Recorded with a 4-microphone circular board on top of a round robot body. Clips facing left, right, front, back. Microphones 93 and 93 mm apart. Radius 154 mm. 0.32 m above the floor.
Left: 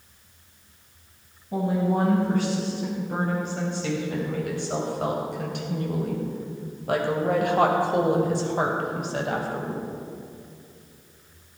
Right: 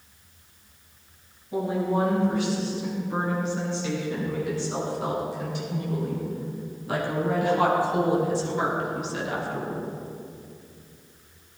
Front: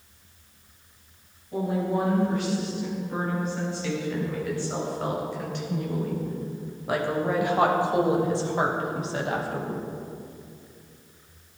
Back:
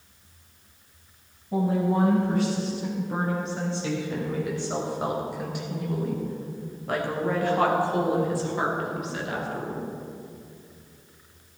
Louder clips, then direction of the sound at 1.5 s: Left 1 dB, back 2 dB; 135° left.